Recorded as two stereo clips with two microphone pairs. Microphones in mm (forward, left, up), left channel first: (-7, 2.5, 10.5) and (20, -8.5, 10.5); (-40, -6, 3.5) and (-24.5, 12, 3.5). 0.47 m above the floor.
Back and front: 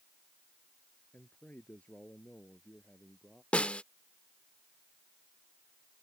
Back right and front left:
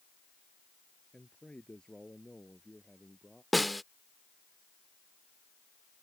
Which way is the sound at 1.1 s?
170° right.